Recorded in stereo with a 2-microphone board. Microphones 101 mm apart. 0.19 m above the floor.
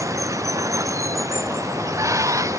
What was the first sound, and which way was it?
Running water, 30° right (ahead or behind).